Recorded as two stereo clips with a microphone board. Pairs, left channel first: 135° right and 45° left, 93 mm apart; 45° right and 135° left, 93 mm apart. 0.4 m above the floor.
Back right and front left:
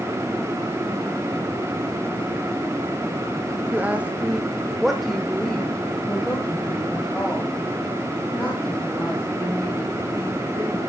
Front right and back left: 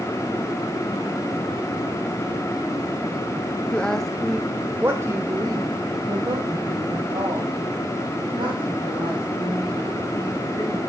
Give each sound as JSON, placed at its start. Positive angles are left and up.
{"t": 3.7, "sound": "a woman speaking", "azimuth_deg": 10, "distance_m": 1.0}